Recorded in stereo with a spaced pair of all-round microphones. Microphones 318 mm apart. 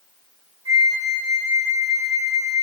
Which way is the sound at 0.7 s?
55° right (ahead or behind).